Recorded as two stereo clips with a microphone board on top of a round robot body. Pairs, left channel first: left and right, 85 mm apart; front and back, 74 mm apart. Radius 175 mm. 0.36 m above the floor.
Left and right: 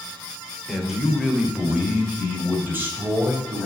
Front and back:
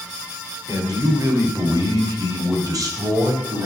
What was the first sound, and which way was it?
A man speaking, straight behind.